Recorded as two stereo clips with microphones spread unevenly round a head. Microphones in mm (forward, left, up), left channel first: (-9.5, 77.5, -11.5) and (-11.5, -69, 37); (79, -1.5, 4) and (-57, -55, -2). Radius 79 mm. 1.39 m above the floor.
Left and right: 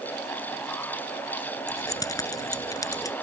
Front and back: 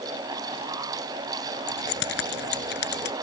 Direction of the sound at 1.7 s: 20° left.